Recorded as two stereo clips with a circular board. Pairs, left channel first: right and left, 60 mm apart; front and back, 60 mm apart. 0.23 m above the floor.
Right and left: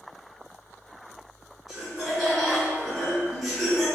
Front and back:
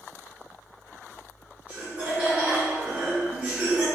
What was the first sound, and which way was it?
Laughter, 170° left.